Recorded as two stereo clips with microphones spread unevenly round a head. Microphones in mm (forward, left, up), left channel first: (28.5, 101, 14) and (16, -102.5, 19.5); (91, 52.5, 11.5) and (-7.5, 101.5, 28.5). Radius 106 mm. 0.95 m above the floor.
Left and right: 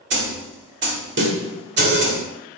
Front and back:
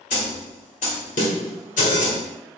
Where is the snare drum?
60° right, 1.7 m.